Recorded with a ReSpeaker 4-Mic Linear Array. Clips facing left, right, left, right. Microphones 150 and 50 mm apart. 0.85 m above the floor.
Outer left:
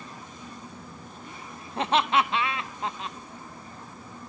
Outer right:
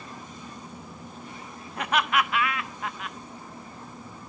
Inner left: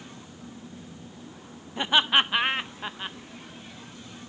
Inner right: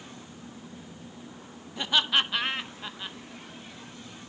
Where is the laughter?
30° left (ahead or behind), 0.5 m.